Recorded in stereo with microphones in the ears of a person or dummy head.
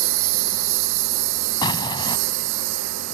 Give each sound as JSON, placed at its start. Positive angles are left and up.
{"t": 0.0, "sound": "a lawn mower", "side_deg": -70}
{"t": 1.6, "sound": "an explosion", "side_deg": 20}